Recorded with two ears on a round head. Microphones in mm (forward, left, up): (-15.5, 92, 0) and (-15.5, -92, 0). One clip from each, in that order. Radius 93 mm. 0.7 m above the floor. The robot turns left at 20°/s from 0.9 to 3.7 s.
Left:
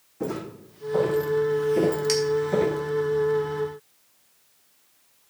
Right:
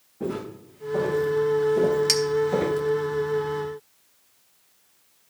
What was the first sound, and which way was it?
Footsteps, 65° left (ahead or behind).